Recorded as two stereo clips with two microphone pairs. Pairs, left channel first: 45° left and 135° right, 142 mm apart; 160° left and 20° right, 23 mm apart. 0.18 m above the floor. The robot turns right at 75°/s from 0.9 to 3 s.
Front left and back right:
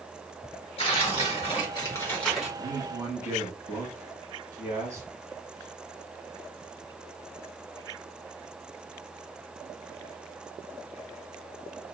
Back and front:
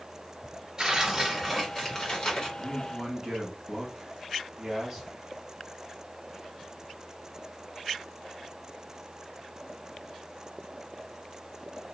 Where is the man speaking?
105° right, 1.6 m; by 5.1 s 75° right, 1.6 m.